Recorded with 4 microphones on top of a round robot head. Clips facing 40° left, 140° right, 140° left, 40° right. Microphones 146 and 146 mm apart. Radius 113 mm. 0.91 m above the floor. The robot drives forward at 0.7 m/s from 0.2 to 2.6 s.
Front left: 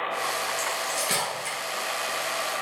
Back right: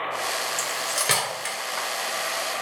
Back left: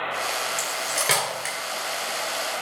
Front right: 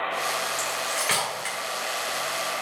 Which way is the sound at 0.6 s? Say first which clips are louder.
Even, even; 165° right.